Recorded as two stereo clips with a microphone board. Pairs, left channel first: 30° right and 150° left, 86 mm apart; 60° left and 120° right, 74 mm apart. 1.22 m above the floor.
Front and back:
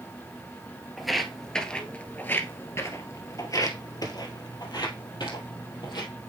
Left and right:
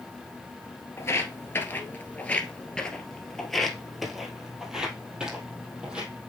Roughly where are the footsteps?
Ahead left.